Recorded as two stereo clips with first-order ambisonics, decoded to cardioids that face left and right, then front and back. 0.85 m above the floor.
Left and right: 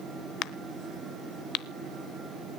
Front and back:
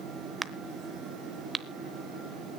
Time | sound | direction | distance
0.4 | a crack | 100° left | 0.8 m